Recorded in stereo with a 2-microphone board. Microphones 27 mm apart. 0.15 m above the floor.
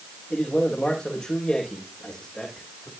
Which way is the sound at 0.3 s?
40° left (ahead or behind).